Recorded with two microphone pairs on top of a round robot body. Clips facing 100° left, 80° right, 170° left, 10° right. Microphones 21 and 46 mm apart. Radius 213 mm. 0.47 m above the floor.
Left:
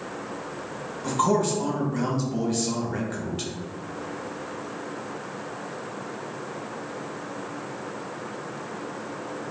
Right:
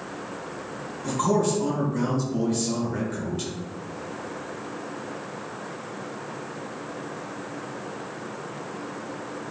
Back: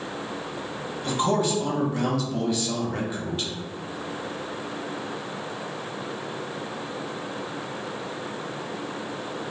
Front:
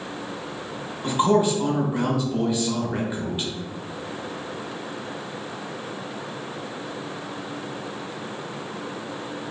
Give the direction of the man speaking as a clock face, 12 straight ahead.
10 o'clock.